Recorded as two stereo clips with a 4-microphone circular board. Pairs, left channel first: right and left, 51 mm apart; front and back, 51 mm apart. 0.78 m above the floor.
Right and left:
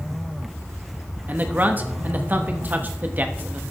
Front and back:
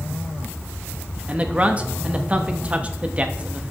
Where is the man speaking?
130° left, 1.0 m.